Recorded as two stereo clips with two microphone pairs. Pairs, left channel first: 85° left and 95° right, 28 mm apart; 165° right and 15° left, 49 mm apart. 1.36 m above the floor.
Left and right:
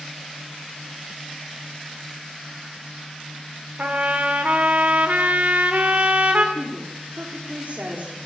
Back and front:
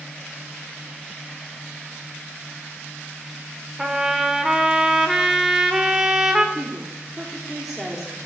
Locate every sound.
3.8 s a trumpet: 70° right, 2.5 m
6.5 s a woman speaking: 75° right, 4 m